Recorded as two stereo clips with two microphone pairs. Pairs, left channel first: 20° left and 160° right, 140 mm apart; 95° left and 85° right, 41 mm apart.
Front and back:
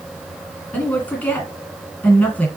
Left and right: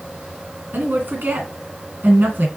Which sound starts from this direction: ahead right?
A woman speaking, at 0.7 s.